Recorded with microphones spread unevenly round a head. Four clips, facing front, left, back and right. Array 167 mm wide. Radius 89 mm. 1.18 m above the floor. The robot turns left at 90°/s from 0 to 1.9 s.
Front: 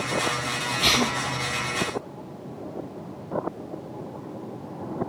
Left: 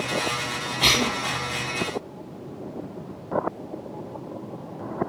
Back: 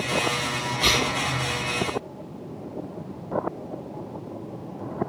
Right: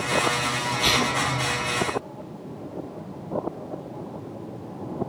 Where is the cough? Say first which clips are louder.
Left 1 dB, front 1 dB; 105° left, 5.5 m; by 1.1 s 75° left, 5.5 m.